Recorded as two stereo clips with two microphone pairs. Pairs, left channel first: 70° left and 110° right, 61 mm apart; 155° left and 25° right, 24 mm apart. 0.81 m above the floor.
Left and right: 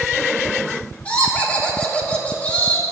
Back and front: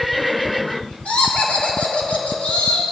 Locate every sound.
1.1 s laughter: 135° left, 2.5 m